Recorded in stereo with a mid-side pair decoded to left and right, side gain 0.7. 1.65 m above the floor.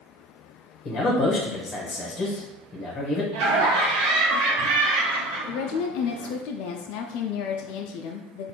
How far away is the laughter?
About 1.4 m.